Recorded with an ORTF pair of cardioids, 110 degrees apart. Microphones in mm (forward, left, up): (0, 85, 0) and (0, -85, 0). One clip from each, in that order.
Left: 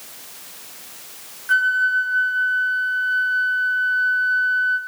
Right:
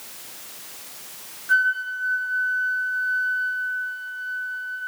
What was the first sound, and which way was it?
A flute, 35° left.